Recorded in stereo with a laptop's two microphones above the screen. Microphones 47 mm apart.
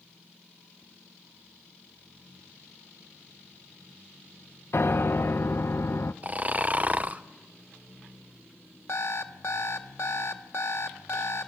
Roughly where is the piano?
Left.